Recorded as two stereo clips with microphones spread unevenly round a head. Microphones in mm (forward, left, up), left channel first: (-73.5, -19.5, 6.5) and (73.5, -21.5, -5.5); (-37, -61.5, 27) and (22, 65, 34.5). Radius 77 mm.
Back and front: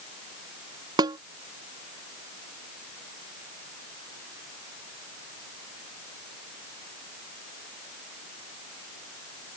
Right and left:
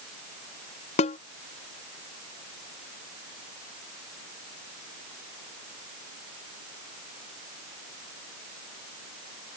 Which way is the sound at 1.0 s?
65° right.